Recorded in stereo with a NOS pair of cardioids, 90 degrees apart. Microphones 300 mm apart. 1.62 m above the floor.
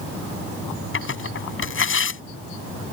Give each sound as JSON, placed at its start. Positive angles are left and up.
{"t": 0.9, "sound": "tearing paper", "azimuth_deg": 40}